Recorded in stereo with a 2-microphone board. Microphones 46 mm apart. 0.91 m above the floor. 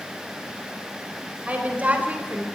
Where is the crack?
No crack in this recording.